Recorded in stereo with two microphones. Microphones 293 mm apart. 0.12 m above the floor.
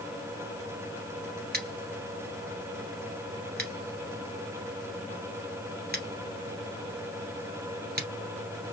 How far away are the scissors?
About 1.7 m.